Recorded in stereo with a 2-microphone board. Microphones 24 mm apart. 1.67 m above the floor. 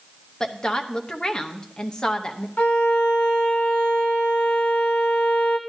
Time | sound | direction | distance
0.4 | a woman speaking | 35° left (ahead or behind) | 0.8 m
2.6 | a violin | 70° left (ahead or behind) | 0.9 m